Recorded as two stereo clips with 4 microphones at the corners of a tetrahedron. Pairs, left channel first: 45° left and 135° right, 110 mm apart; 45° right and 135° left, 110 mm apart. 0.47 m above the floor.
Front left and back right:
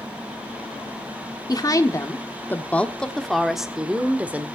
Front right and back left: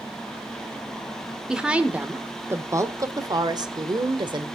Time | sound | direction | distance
1.5 | a woman speaking | 55° left | 1.2 m